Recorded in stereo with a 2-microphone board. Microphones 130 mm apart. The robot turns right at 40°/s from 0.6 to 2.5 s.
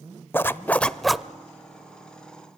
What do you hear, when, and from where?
0.3 s a zipper: 20° left (ahead or behind), 0.5 m; by 1.2 s 5° right (ahead or behind), 0.5 m